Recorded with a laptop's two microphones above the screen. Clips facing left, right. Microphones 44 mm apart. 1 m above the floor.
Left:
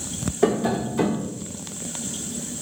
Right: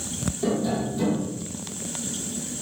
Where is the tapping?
85° left, 1.7 m.